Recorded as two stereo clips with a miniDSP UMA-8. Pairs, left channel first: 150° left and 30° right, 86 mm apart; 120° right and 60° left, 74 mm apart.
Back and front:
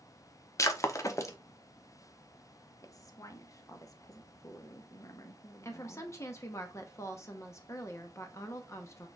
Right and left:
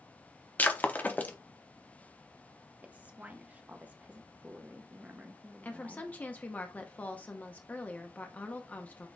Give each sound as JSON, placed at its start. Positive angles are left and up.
{"t": 0.6, "sound": "breaking glass", "azimuth_deg": -175, "distance_m": 0.6}
{"t": 2.8, "sound": "a woman speaking", "azimuth_deg": 120, "distance_m": 0.7}
{"t": 5.6, "sound": "a woman speaking", "azimuth_deg": 180, "distance_m": 0.7}